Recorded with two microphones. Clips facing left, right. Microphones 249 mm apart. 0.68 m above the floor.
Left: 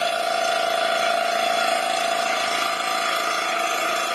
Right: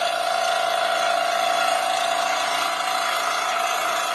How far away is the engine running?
About 1.0 m.